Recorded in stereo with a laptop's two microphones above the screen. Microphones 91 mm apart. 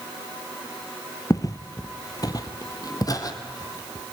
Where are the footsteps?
35° left (ahead or behind), 1.2 m; by 4.0 s 40° left (ahead or behind), 2.5 m.